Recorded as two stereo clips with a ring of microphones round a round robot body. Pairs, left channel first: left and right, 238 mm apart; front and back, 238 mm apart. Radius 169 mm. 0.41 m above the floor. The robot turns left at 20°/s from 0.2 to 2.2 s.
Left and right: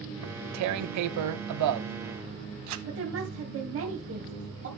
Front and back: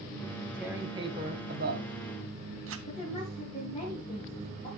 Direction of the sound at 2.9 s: 70° right.